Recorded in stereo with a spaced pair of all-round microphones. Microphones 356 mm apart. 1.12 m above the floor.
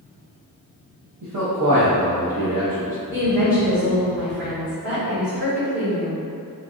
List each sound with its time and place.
1.2 s a man speaking: 60° right (ahead or behind), 1.0 m; by 3.0 s 65° right (ahead or behind), 1.0 m
3.1 s a woman speaking: 50° right (ahead or behind), 1.7 m